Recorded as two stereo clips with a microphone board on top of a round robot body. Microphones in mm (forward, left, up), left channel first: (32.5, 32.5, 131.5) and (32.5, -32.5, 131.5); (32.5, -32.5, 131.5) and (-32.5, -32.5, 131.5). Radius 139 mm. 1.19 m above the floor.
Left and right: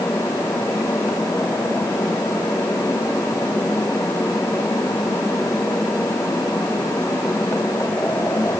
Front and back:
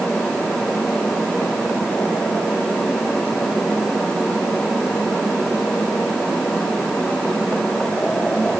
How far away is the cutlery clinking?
No cutlery clinking in this recording.